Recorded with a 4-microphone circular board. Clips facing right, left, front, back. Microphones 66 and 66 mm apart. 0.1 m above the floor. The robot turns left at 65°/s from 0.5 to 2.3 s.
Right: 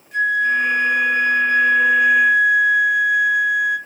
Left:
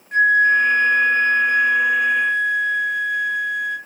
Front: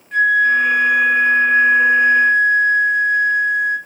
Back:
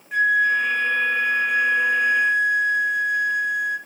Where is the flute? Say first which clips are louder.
Left 3 dB, front 5 dB; 100° left, 1.2 m; by 3.8 s 15° right, 1.2 m.